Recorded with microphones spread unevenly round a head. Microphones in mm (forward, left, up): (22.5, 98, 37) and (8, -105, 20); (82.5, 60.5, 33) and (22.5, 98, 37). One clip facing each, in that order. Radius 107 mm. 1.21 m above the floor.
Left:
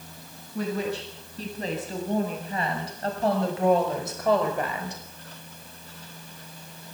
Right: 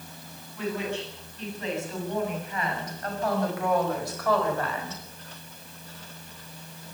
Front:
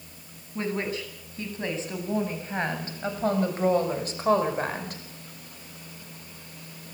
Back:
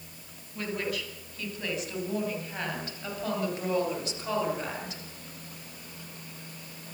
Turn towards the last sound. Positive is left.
turn(degrees=10)